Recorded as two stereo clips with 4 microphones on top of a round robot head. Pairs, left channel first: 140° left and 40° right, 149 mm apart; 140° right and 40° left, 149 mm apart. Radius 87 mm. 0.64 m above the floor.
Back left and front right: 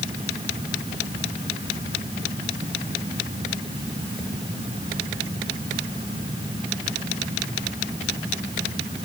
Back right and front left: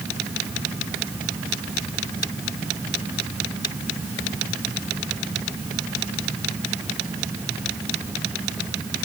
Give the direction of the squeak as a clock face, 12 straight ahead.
I don't hear a squeak.